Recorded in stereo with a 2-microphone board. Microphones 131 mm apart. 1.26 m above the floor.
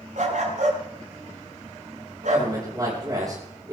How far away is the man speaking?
About 5.5 m.